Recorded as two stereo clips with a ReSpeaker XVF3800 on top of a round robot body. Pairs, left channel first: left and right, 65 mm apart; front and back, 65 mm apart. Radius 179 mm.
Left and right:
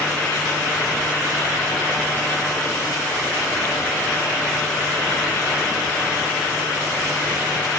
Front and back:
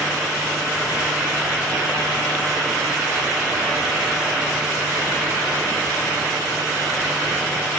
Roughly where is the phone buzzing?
I don't hear a phone buzzing.